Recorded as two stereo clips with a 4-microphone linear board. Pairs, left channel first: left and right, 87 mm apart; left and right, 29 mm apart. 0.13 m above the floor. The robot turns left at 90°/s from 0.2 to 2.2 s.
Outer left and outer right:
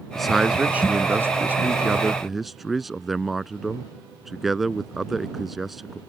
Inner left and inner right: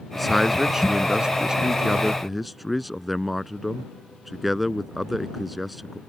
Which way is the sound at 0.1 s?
Centre (ahead or behind).